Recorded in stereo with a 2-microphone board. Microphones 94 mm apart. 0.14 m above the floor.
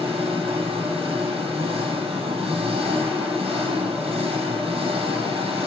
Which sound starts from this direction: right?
An engine running, at 0.0 s.